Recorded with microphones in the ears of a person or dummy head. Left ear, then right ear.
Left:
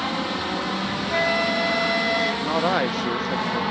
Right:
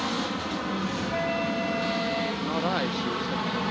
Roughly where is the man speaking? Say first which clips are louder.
Left 6 dB; left.